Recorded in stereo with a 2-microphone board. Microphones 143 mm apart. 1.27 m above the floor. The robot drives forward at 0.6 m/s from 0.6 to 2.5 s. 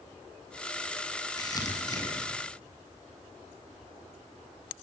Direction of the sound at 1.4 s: 25° left (ahead or behind).